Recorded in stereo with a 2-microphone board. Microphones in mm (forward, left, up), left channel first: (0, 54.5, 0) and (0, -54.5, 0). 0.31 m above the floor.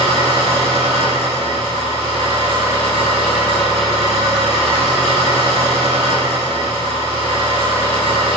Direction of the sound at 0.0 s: 80° right.